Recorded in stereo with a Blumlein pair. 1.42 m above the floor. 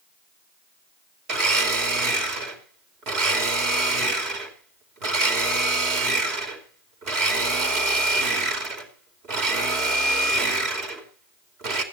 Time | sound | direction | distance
1.3 | a blender | 35° right | 2.5 m